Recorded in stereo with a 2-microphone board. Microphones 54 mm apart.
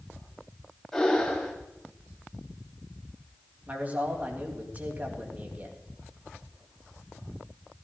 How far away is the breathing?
About 3.5 m.